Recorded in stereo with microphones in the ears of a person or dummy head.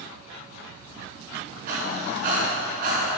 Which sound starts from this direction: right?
Breathing, at 1.7 s.